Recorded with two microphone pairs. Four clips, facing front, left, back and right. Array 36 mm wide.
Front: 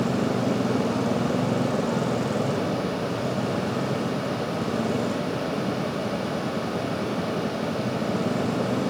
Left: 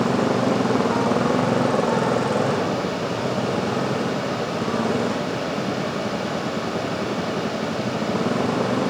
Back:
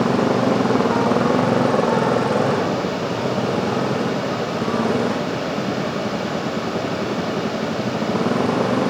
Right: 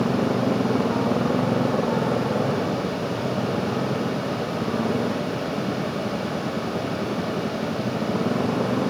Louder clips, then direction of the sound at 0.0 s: Left 2 dB, back 7 dB; 160° left.